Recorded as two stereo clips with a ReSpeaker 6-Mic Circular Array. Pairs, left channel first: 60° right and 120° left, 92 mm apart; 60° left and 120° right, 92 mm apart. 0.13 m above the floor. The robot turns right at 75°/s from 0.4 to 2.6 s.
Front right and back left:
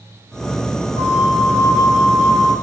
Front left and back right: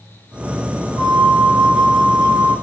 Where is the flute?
170° right, 0.5 m; by 2.5 s 55° right, 0.5 m.